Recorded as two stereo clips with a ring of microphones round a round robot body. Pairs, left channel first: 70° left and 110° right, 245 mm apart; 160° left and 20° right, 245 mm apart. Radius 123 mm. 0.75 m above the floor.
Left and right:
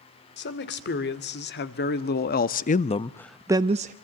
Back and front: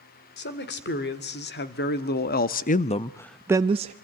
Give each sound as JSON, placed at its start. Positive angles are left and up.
{"t": 0.4, "sound": "a man speaking", "azimuth_deg": 110, "distance_m": 2.5}